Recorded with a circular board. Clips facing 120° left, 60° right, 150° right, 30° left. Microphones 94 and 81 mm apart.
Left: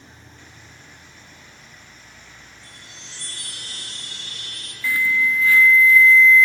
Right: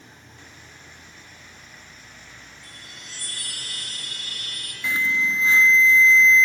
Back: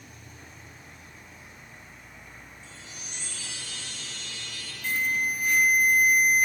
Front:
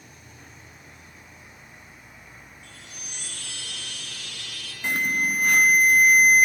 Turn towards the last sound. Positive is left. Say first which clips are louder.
# left 3 dB, front 3 dB
turn(degrees=5)